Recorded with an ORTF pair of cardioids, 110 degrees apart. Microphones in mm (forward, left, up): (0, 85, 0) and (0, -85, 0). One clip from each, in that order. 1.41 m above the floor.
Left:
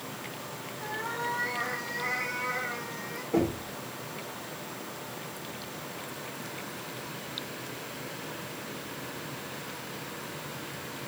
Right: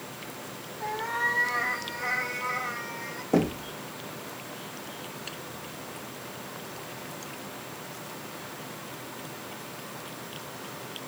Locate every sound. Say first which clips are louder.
0.8 s a cat meowing: right 5 dB; 35° right, 3.5 m; by 3.2 s 15° right, 3 m
3.3 s knocking: right 2 dB; 65° right, 2.0 m